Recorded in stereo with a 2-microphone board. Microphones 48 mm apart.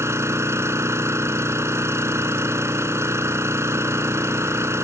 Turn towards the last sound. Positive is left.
turn(degrees=-75)  # may be behind; listen again after turning